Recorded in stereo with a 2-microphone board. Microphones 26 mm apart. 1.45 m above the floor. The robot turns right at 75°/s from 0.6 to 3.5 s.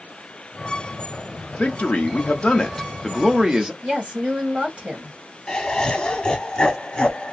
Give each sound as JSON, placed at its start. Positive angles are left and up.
{"t": 1.6, "sound": "a man speaking", "azimuth_deg": 60, "distance_m": 0.9}
{"t": 3.8, "sound": "a woman speaking", "side_deg": -50, "distance_m": 1.5}
{"t": 5.5, "sound": "laughter", "side_deg": 35, "distance_m": 0.7}